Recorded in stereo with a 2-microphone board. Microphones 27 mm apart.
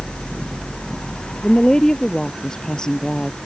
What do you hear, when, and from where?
1.4 s a woman speaking: 25° left (ahead or behind)